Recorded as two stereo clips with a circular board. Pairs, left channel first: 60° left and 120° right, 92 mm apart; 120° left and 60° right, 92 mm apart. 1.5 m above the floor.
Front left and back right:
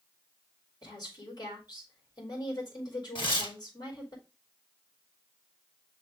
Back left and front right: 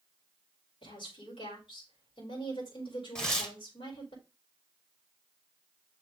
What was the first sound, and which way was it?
A woman speaking, 100° left.